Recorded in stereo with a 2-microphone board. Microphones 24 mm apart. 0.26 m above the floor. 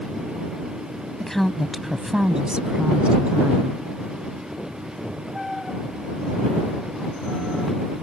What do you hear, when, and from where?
1.2 s a woman speaking: 15° left (ahead or behind); by 3.9 s 65° right (ahead or behind)